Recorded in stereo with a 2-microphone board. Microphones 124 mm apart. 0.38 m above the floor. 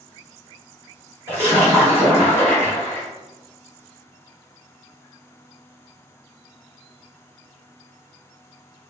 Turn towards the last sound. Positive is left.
turn(degrees=-20)  # may be behind; listen again after turning